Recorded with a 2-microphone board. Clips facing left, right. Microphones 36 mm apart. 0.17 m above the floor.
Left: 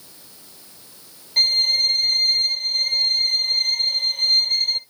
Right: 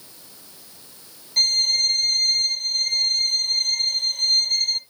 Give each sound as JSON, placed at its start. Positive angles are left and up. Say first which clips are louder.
{"t": 1.4, "sound": "a violin", "louder": "left 2 dB", "side_deg": 15, "distance_m": 0.6}